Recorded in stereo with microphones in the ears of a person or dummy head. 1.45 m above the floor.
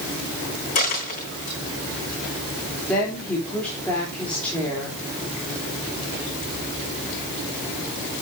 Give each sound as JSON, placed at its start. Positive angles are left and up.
{"t": 0.8, "sound": "a dropped coin", "side_deg": 45, "distance_m": 3.5}
{"t": 2.9, "sound": "a woman speaking", "side_deg": 5, "distance_m": 3.0}